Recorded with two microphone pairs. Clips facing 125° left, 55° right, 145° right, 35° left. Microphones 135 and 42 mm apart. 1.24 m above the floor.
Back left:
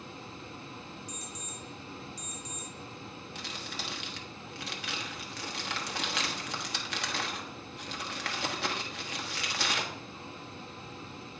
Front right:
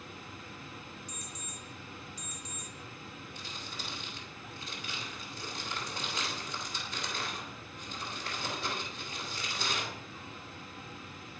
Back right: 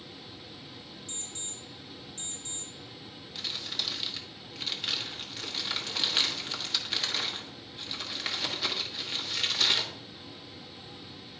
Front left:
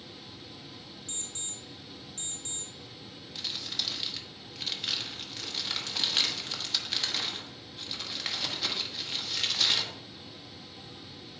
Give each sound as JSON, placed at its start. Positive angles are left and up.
{"t": 1.1, "sound": "an alarm clock", "azimuth_deg": 5, "distance_m": 2.0}
{"t": 3.4, "sound": "crumpling", "azimuth_deg": 130, "distance_m": 1.1}